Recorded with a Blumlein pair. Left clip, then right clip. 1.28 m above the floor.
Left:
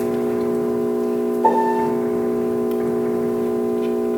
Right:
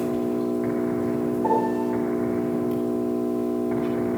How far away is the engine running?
About 2.5 m.